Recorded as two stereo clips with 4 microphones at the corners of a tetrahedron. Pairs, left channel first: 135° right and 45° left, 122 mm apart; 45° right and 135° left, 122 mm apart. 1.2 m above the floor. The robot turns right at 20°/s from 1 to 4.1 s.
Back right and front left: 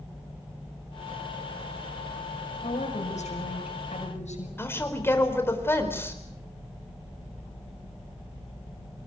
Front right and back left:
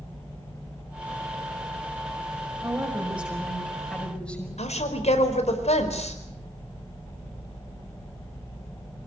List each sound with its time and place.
2.6 s a woman speaking: 155° right, 6 m; by 4.5 s 125° right, 6 m
4.6 s a woman speaking: 65° right, 4.5 m